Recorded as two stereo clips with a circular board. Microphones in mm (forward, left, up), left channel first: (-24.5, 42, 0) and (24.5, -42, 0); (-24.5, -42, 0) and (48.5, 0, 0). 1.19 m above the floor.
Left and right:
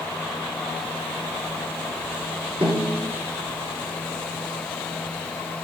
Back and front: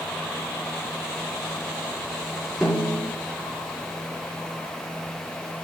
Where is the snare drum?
65° right, 4 m.